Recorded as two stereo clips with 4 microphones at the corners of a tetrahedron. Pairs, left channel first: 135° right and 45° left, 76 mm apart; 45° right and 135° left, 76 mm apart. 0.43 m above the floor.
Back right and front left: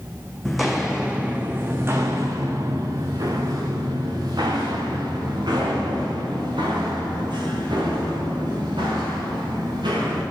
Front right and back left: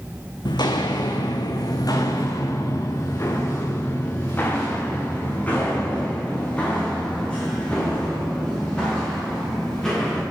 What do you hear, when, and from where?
0.5 s footsteps: 50° right, 1.3 m; by 10.2 s 35° left, 6 m